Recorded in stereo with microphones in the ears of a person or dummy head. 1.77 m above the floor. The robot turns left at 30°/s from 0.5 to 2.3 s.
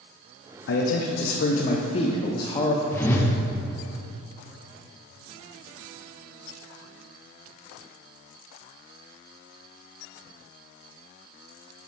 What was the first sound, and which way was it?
A man speaking, 70° left.